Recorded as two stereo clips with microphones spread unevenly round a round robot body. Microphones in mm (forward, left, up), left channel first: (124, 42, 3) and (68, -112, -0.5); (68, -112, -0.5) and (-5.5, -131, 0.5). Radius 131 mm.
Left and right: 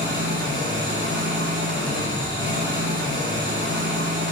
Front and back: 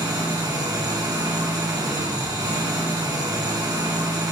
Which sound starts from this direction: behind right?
An engine running, at 0.0 s.